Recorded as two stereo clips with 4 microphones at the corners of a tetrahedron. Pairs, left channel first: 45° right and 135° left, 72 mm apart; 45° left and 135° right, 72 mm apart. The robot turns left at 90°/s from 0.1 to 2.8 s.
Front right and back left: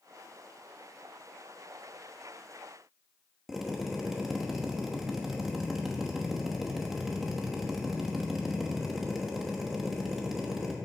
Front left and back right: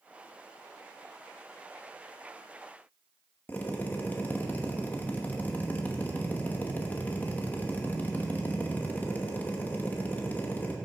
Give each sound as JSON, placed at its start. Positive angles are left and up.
{"t": 3.5, "sound": "a drill", "azimuth_deg": 55, "distance_m": 1.1}